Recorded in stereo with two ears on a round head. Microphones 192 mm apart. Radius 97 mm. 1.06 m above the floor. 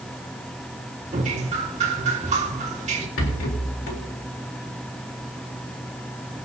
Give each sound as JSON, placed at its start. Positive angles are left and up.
{"t": 1.1, "sound": "dripping", "side_deg": -35, "distance_m": 2.0}
{"t": 3.2, "sound": "a rattle", "side_deg": 70, "distance_m": 3.5}